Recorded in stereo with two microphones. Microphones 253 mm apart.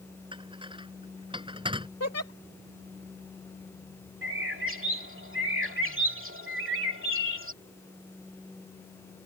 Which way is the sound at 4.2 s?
55° right (ahead or behind).